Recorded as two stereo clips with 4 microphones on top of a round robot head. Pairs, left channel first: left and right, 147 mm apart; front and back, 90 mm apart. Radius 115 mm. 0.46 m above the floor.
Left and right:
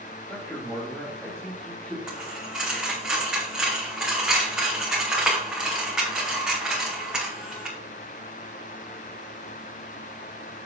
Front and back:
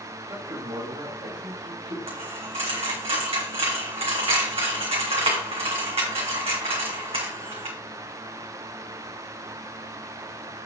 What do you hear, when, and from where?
0.3 s a man speaking: 165° left, 1.8 m
2.1 s a dropped coin: 175° right, 2.5 m